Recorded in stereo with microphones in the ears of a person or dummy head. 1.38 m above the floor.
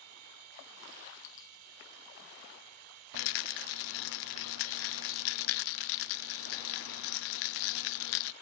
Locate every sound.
0.0 s a machine running: 80° right
1.2 s a dropped coin: 55° left (ahead or behind)
3.1 s a rattle: 70° left (ahead or behind)